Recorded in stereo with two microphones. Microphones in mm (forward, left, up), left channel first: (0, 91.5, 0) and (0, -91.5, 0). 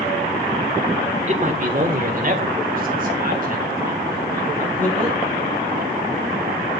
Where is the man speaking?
40° right (ahead or behind), 1.0 m; by 5.2 s 45° right (ahead or behind), 5 m.